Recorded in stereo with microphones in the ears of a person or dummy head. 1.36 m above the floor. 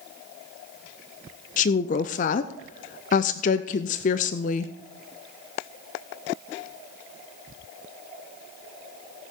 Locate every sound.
1.6 s a woman speaking: 45° left (ahead or behind), 0.5 m